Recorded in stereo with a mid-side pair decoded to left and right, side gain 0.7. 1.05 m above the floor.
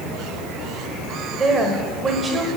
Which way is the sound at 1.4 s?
25° right.